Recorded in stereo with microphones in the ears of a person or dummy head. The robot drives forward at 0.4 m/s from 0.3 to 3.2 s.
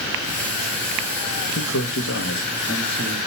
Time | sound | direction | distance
1.6 | a man speaking | 65° left (ahead or behind) | 1.4 m